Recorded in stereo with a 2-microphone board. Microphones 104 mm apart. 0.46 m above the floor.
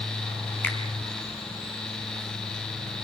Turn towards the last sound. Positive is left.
turn(degrees=20)  # may be behind; listen again after turning